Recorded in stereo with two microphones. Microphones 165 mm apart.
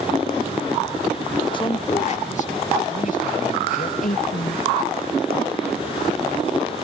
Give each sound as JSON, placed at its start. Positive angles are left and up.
{"t": 1.5, "sound": "a man speaking", "side_deg": 30}
{"t": 4.0, "sound": "a woman speaking", "side_deg": 55}